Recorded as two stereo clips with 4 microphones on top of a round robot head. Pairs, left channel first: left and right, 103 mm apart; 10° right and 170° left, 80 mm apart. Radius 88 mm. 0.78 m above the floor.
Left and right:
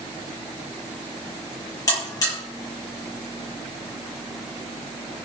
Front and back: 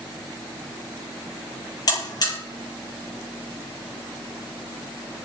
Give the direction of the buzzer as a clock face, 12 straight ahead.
11 o'clock.